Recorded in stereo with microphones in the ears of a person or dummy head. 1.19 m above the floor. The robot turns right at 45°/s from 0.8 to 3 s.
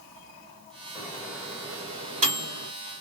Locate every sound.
0.9 s a microwave: 15° left (ahead or behind), 1.9 m; by 2.7 s 60° right (ahead or behind), 1.9 m